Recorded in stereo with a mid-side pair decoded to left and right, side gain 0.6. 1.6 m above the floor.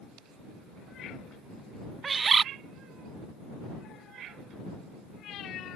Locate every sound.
2.0 s a bird: 30° right